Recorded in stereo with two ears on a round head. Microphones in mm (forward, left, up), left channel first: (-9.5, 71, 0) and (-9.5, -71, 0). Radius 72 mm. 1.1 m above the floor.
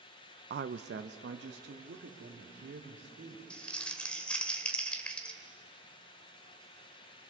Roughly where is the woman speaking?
Right.